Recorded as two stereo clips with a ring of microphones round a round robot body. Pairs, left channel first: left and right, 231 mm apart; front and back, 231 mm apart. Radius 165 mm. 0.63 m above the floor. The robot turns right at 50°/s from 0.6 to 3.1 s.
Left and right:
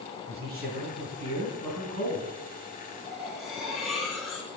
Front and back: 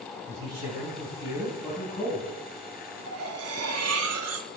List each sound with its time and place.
0.3 s a man speaking: 150° right, 3.5 m; by 2.3 s 65° right, 3.5 m
3.1 s cutlery clinking: straight behind, 0.8 m